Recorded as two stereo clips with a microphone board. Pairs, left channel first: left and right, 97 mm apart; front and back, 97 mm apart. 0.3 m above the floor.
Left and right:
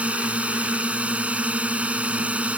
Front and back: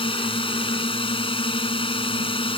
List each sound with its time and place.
0.0 s a drone: 15° right